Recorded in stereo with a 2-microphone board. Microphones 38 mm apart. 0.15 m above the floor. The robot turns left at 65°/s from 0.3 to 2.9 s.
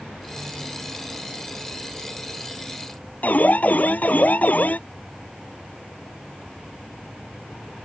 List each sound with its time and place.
3.2 s an alarm: 50° left (ahead or behind)